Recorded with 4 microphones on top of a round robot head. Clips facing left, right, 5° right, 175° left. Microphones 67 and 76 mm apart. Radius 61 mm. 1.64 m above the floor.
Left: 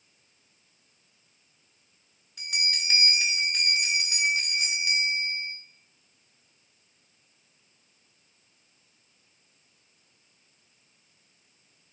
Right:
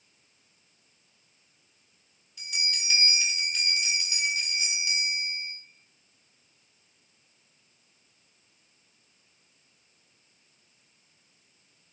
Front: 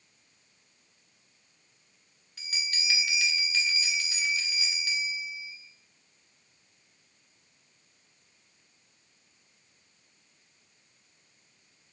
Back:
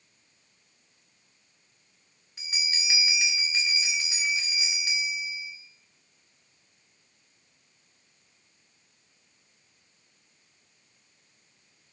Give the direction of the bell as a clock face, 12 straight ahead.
8 o'clock.